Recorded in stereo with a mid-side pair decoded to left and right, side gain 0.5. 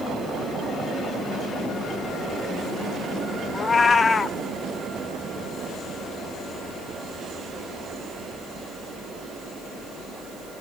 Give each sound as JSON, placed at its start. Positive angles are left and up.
{"t": 3.5, "sound": "a cat meowing", "azimuth_deg": 30, "distance_m": 1.1}